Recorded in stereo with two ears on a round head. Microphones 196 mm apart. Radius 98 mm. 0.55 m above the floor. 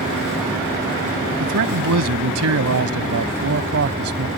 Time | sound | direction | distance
1.4 | a man speaking | 75° right (ahead or behind) | ?